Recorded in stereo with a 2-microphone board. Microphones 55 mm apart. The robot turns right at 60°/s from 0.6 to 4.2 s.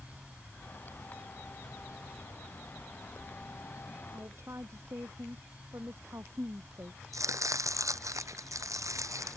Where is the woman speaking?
50° right (ahead or behind); by 7.0 s 55° right (ahead or behind).